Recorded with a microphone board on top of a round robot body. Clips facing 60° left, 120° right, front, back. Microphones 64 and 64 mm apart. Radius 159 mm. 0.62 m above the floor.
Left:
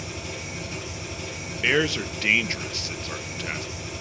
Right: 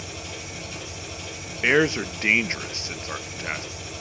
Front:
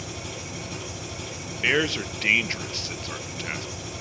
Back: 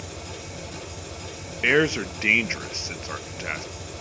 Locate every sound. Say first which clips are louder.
0.0 s an engine running: left 2 dB, front 1 dB; 5° right, 8 m
1.6 s a man speaking: right 3 dB, back 3 dB; 140° right, 0.9 m